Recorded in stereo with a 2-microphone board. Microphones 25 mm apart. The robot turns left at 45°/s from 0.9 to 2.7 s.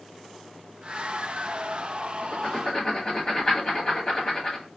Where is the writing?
50° left (ahead or behind), 1.2 m; by 4.7 s 35° left (ahead or behind), 1.2 m.